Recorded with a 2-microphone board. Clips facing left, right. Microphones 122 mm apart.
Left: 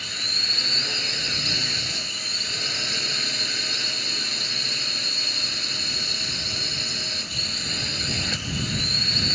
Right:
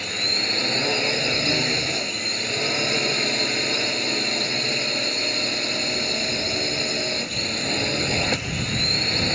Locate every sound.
0.0 s a drone: 60° right (ahead or behind)